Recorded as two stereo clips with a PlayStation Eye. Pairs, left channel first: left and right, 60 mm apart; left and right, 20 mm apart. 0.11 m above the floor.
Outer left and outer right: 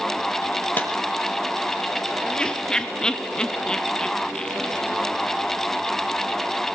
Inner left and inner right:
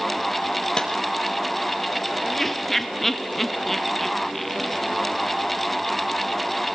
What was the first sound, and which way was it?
A clap, 30° left (ahead or behind).